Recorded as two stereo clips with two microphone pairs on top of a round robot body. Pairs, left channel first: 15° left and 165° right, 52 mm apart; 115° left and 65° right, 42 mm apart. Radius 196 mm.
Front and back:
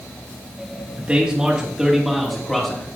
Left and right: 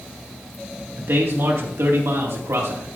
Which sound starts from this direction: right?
A man speaking, at 1.0 s.